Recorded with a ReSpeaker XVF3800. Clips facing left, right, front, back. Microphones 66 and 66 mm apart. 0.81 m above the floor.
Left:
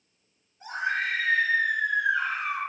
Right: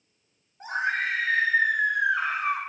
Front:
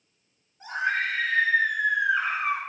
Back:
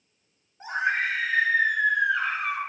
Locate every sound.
0.6 s a scream: 120° right, 2 m; by 2.6 s 55° right, 1.8 m